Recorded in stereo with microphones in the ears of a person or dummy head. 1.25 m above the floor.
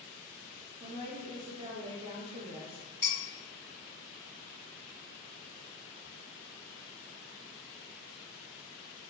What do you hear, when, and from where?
0.8 s a woman speaking: 30° right (ahead or behind), 0.6 m
3.0 s dishes clattering: 40° right (ahead or behind), 1.9 m